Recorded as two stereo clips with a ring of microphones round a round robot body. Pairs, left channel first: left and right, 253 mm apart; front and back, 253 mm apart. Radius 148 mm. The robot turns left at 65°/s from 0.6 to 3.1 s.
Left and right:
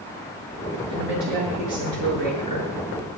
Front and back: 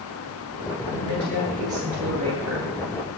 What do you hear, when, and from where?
0.9 s a woman speaking: 50° right, 9 m; by 2.7 s 170° right, 9 m